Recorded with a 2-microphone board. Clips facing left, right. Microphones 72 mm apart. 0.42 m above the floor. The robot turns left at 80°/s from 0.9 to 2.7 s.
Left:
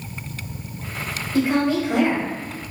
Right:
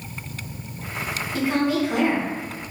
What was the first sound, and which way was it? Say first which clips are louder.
A woman speaking: left 3 dB; 160° left.